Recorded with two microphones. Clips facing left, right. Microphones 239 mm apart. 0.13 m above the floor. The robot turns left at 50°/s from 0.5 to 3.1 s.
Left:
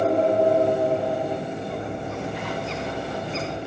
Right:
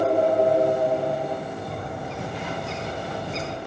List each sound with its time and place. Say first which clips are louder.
1.7 s a bird: left 3 dB; 65° right, 8.5 m; by 3.6 s 135° right, 8.5 m